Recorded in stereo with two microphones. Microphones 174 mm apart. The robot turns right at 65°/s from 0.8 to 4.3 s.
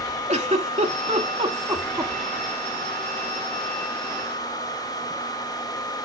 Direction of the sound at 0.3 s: 40° right (ahead or behind).